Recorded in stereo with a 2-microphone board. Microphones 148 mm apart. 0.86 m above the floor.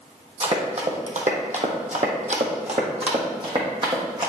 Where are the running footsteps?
45° right (ahead or behind), 1.7 m; by 4.3 s 30° right (ahead or behind), 2.5 m.